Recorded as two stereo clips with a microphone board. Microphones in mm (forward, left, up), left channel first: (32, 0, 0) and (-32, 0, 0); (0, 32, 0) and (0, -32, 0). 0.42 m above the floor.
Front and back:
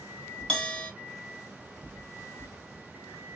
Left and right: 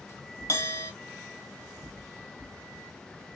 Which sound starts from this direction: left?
A bell, at 0.5 s.